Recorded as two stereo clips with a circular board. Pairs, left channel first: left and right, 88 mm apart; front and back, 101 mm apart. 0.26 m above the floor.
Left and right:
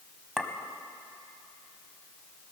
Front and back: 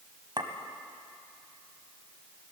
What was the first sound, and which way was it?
A clink, 175° right.